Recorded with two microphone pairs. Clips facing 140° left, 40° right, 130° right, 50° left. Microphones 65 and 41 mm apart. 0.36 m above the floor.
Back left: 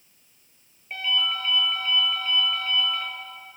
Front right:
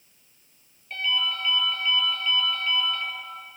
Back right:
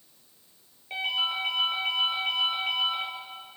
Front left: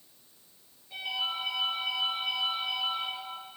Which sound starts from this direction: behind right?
A ringtone, at 0.9 s.